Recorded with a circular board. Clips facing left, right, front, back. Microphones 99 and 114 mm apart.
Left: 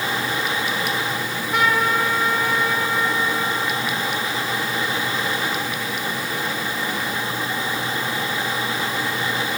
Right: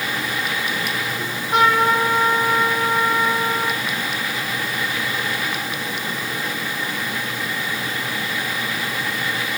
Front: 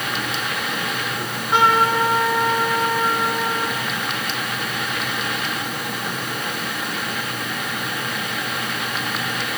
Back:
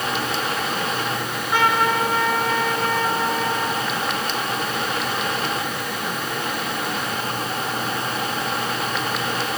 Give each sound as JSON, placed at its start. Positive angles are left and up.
{"t": 1.2, "sound": "a trumpet", "azimuth_deg": -70, "distance_m": 8.5}